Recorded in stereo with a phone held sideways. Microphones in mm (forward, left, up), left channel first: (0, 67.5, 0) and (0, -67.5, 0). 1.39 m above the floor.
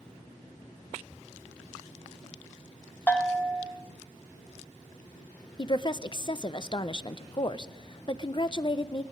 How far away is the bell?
About 1.2 m.